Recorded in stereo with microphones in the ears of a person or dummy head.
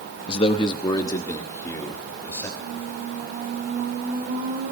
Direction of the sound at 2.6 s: 40° right (ahead or behind).